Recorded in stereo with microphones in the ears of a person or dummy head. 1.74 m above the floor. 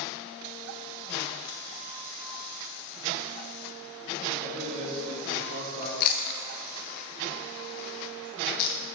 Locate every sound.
4.4 s a man speaking: 45° right (ahead or behind), 1.8 m; by 5.9 s 40° right (ahead or behind), 3 m
6.0 s chewing: 50° left (ahead or behind), 0.6 m